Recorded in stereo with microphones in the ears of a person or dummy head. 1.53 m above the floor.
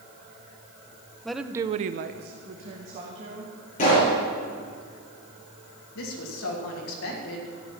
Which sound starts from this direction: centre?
A woman speaking, at 1.2 s.